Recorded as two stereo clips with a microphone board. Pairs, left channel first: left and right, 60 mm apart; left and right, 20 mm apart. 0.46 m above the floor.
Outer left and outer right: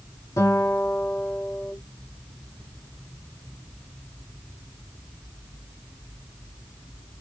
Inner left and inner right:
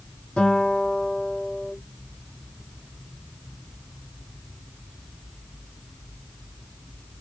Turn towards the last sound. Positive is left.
turn(degrees=75)  # may be behind; listen again after turning